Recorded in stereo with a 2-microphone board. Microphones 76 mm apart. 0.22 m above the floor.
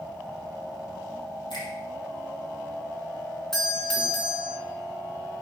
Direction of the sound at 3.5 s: 5° left (ahead or behind).